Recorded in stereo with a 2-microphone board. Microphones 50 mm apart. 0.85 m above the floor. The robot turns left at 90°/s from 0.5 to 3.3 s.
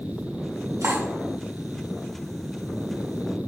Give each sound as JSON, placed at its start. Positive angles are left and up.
{"t": 0.8, "sound": "cutlery clinking", "side_deg": -80, "distance_m": 1.5}